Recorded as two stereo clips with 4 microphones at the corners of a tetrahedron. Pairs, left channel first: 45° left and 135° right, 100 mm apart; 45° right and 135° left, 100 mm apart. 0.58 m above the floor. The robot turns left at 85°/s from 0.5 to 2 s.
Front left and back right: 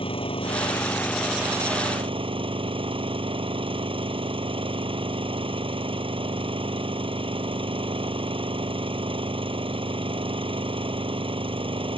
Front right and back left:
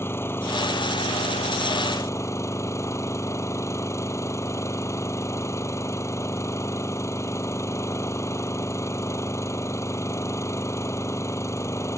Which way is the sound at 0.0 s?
20° left.